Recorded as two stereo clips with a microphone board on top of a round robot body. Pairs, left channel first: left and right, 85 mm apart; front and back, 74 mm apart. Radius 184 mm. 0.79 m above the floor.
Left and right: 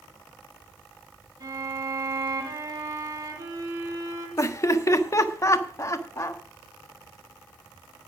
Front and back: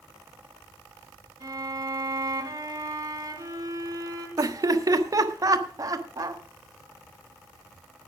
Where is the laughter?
145° left, 1.4 m.